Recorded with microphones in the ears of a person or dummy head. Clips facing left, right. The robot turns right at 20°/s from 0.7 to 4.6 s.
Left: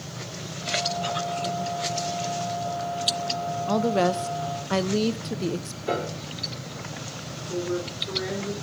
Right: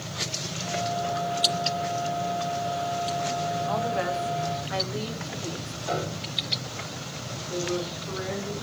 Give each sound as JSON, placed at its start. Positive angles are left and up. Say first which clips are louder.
{"t": 3.7, "sound": "a woman speaking", "louder": "left 9 dB", "side_deg": 55, "distance_m": 1.0}
{"t": 5.9, "sound": "a piano", "louder": "left 2 dB", "side_deg": 45, "distance_m": 2.5}
{"t": 7.5, "sound": "a woman speaking", "louder": "left 1 dB", "side_deg": 30, "distance_m": 5.0}